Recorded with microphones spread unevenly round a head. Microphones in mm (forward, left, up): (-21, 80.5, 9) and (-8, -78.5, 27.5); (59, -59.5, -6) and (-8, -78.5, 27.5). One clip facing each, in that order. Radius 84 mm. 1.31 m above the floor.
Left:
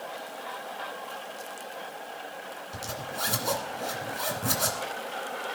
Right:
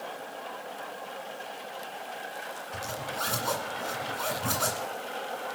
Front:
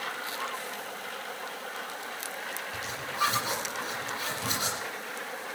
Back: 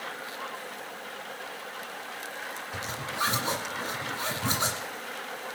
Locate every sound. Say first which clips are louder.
2.7 s a zipper: right 1 dB, even; 175° left, 2 m